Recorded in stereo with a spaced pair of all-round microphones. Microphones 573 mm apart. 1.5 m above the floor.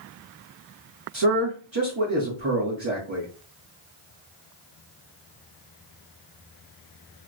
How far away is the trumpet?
No trumpet in this recording.